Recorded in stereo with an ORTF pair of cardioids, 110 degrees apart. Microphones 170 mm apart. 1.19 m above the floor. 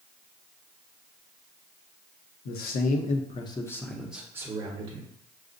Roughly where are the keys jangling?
No keys jangling in this recording.